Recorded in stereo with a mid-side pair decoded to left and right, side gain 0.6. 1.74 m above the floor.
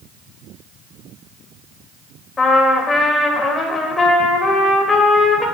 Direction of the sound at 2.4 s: 30° left.